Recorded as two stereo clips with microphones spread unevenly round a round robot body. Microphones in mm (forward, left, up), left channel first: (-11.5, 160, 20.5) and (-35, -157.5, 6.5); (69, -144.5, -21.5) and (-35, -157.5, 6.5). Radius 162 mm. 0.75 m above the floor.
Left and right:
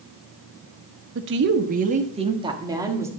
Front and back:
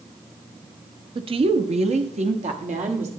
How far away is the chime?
I don't hear a chime.